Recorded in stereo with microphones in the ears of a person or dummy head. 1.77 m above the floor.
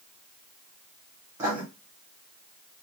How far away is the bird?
I don't hear a bird.